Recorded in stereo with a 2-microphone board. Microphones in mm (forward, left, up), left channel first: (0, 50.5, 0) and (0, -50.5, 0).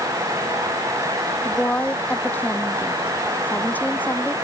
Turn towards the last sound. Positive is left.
turn(degrees=15)  # may be behind; listen again after turning